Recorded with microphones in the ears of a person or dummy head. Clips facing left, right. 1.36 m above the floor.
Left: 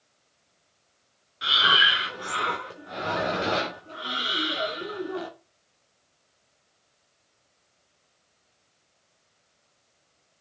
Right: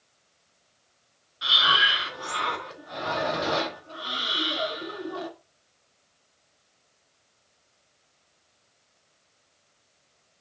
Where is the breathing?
35° left (ahead or behind), 3 m.